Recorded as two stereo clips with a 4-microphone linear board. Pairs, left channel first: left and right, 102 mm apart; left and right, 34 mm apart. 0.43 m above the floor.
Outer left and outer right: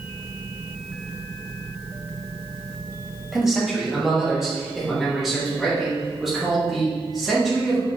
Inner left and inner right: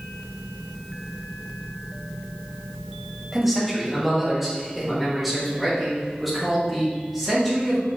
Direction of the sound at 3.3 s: 5° right (ahead or behind).